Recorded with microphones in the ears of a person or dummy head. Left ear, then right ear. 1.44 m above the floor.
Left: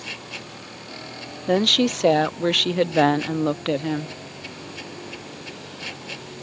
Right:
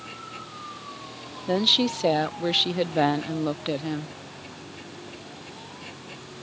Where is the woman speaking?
10° left (ahead or behind).